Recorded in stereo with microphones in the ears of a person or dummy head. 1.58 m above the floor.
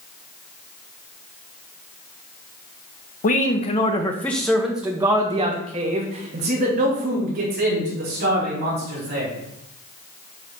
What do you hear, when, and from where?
3.2 s a man speaking: 45° left (ahead or behind), 0.9 m; by 9.3 s 50° right (ahead or behind), 3 m